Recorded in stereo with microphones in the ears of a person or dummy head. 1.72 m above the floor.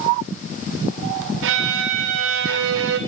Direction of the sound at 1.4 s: 70° right (ahead or behind).